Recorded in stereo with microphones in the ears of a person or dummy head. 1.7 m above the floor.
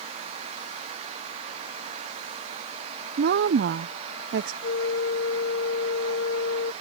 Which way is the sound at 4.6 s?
75° left (ahead or behind).